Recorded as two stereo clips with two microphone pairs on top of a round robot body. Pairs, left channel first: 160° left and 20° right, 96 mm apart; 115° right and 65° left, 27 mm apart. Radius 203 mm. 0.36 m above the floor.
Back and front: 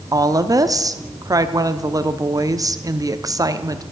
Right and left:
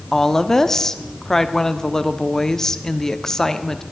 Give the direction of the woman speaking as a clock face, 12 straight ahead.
1 o'clock.